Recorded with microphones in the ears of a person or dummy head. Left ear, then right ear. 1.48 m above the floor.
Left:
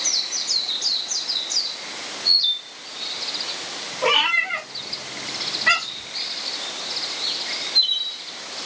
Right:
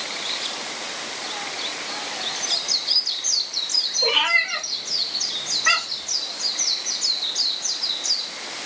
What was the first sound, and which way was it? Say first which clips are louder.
A cat meowing: left 2 dB; 5° right (ahead or behind).